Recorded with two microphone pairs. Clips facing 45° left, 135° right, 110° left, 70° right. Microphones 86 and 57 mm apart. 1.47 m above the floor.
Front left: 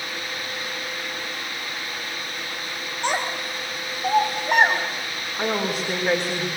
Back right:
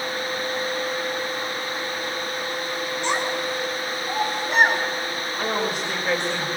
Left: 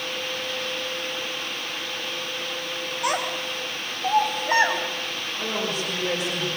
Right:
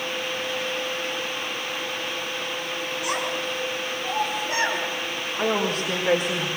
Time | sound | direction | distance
3.0 | a child speaking | 80° left | 5 m
5.4 | a woman speaking | 20° right | 4 m